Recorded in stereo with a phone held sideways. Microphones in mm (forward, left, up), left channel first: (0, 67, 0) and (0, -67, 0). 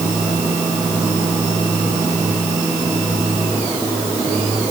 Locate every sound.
Only background noise.